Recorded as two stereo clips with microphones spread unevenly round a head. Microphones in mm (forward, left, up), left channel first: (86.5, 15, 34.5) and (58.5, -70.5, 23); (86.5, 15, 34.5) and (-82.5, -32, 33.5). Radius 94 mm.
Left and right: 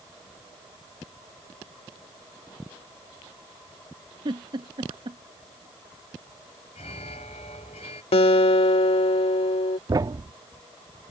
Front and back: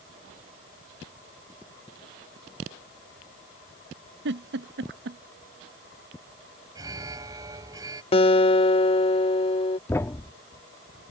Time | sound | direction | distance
4.2 | a giggle | 150° right | ?
6.8 | an alarm | 125° left | ?
8.1 | a guitar | 75° left | ?
9.9 | a thud | 60° right | ?